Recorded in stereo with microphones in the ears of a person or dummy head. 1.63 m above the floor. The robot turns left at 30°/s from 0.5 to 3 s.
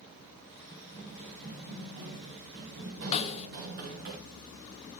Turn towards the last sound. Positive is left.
turn(degrees=35)  # may be behind; listen again after turning